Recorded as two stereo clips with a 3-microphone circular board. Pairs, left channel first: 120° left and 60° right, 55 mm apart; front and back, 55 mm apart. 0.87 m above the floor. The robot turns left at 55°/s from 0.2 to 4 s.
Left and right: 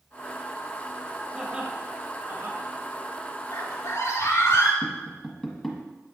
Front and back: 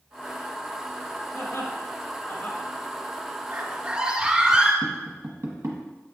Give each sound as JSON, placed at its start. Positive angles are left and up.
{"t": 1.3, "sound": "laughter", "azimuth_deg": 15, "distance_m": 1.5}
{"t": 3.5, "sound": "a scream", "azimuth_deg": 130, "distance_m": 2.0}
{"t": 4.8, "sound": "tapping", "azimuth_deg": -155, "distance_m": 1.2}